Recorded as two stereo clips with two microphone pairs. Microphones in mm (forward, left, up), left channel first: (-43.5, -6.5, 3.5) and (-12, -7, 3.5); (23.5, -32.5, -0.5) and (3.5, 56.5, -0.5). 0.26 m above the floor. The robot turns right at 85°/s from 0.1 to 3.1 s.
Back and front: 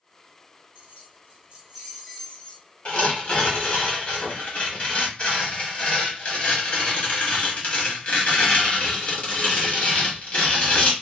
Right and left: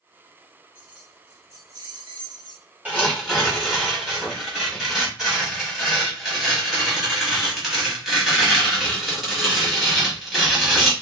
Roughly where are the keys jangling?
Ahead.